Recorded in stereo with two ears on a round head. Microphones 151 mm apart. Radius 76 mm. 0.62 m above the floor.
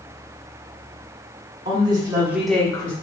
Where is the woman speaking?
30° right (ahead or behind), 1.5 m; by 2.9 s 30° left (ahead or behind), 0.8 m.